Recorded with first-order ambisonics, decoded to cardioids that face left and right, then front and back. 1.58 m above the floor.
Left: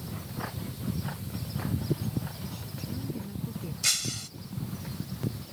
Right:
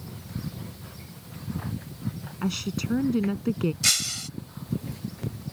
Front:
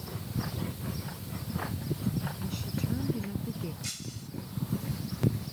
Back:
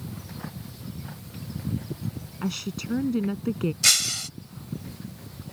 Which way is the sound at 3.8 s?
160° right.